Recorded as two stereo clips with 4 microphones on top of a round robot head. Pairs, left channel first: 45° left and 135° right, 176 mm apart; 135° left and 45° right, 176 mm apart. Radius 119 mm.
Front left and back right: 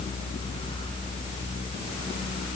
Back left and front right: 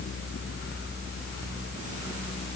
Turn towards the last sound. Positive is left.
No sound to turn to.